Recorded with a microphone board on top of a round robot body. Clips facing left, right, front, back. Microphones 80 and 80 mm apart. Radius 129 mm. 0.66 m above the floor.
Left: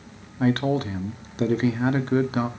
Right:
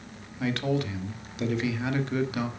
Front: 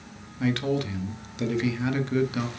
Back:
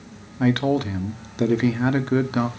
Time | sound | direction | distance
0.4 | a man speaking | 135° left | 1.5 m